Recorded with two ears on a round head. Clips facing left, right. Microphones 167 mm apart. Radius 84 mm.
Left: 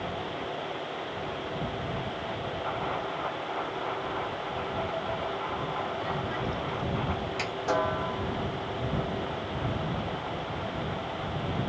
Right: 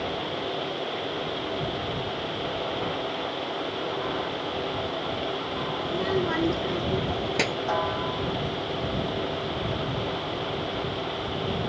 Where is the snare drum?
40° left (ahead or behind).